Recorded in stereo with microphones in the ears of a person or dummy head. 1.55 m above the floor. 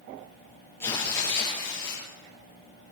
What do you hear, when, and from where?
0.8 s tearing paper: 20° left (ahead or behind), 5.5 m